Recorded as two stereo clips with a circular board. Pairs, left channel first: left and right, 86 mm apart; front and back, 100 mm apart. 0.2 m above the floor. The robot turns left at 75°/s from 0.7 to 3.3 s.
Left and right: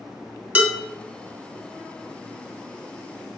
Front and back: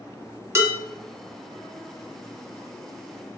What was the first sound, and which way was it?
Dishes clattering, 140° right.